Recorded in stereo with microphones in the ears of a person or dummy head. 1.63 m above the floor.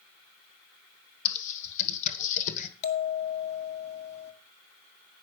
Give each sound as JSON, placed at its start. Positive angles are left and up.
{"t": 1.2, "sound": "typing on a keyboard", "side_deg": 45, "distance_m": 1.3}
{"t": 2.8, "sound": "a bell", "side_deg": 35, "distance_m": 1.5}